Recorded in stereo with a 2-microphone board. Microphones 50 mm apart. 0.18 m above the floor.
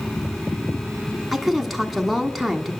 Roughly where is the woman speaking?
Centre.